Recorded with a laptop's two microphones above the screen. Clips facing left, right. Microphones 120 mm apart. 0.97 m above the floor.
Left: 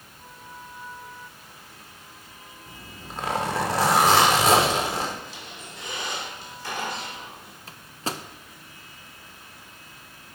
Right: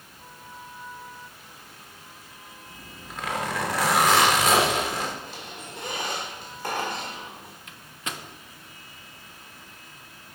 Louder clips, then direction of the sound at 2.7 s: Left 3 dB; 30° left (ahead or behind).